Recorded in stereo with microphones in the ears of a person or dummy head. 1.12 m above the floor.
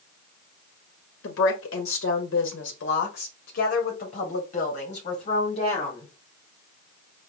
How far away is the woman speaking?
About 1.2 m.